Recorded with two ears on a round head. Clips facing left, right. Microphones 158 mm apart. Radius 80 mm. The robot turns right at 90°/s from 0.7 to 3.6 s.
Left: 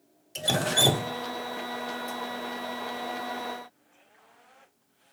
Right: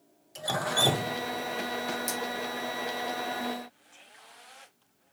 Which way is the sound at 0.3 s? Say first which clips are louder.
Left 3 dB; 30° left (ahead or behind).